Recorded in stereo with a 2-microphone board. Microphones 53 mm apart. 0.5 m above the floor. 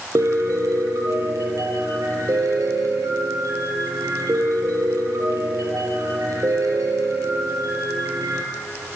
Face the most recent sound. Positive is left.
turn(degrees=-85)